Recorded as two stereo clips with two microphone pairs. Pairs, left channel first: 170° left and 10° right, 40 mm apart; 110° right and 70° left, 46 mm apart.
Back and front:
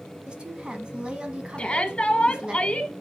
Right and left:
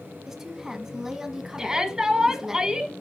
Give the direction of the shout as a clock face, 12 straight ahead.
7 o'clock.